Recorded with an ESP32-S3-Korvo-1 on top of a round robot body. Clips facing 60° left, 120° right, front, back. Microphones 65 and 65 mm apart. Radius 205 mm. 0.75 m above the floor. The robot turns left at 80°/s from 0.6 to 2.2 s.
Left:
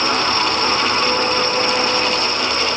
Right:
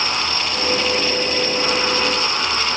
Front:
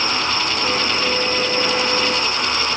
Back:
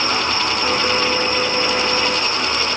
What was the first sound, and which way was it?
Only background noise.